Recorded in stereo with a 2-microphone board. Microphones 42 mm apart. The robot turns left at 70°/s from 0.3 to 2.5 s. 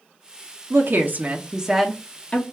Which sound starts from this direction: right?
A woman speaking, at 0.7 s.